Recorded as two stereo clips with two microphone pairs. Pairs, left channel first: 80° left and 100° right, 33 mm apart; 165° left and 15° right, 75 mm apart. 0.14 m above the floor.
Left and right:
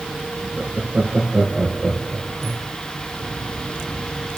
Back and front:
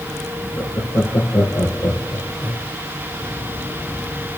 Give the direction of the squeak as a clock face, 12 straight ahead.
I don't hear a squeak.